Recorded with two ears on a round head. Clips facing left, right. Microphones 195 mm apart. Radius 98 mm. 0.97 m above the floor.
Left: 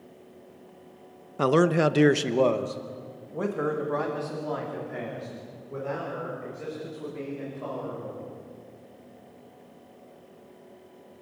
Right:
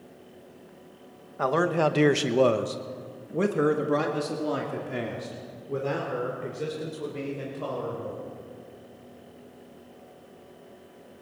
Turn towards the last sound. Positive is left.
turn(degrees=-55)  # may be behind; listen again after turning